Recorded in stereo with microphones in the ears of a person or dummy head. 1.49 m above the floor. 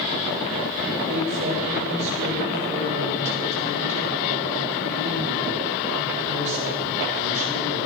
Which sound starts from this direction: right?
A woman speaking, at 1.1 s.